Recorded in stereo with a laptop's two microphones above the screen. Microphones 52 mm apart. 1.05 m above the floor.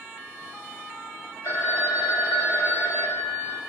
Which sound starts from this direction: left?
A phone ringing, at 1.4 s.